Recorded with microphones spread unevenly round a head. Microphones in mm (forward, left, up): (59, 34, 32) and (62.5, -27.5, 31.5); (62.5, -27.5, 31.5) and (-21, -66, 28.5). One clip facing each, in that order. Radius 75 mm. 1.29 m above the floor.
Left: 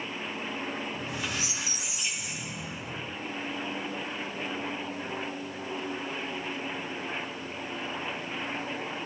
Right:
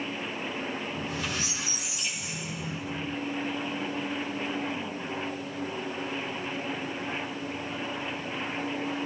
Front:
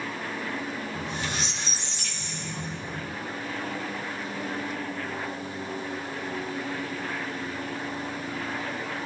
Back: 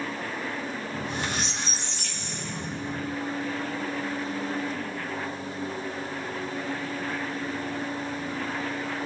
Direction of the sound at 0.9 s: 175° left.